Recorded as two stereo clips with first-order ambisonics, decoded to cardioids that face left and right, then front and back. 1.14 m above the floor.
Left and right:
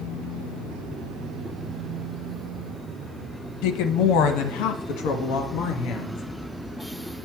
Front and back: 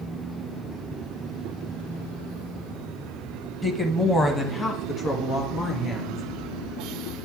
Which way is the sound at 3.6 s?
80° left.